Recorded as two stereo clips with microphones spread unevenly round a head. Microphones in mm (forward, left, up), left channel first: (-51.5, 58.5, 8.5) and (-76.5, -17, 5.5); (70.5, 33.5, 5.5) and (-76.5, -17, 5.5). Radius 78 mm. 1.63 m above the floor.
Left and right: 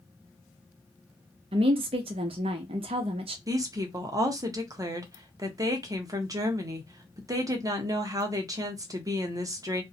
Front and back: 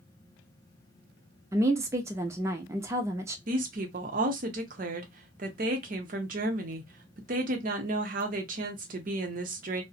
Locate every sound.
1.5 s a woman speaking: 85° right, 0.6 m
3.5 s a woman speaking: 145° right, 0.7 m